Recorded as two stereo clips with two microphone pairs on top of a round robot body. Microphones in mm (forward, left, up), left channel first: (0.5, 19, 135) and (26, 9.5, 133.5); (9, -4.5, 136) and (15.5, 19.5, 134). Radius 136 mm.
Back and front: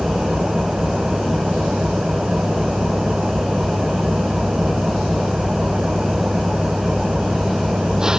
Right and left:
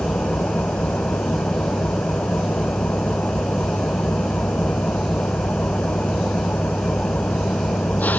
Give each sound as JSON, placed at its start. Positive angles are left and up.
{"t": 0.0, "sound": "an engine running", "azimuth_deg": -90}